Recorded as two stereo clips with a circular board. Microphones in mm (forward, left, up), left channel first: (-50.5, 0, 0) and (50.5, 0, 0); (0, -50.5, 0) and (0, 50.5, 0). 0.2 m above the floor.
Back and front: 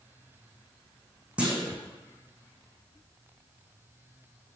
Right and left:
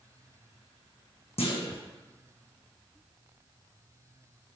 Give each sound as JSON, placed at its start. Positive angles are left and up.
{"t": 1.4, "sound": "a clunk", "azimuth_deg": -80, "distance_m": 2.5}